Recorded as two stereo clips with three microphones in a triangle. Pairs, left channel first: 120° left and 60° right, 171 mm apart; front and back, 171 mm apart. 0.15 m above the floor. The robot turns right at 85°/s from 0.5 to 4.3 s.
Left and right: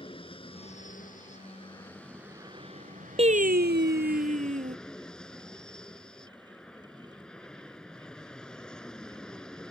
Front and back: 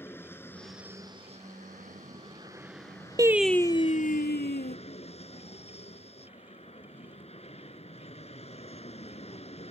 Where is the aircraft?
75° left; by 9.7 s 35° left.